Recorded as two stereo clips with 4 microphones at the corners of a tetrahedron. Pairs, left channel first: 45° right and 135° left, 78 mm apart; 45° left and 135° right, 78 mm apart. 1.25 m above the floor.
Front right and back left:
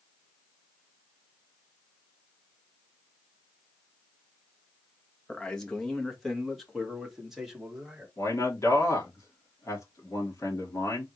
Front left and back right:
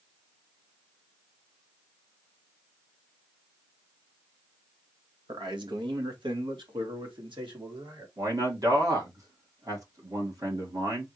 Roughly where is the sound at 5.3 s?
Behind right.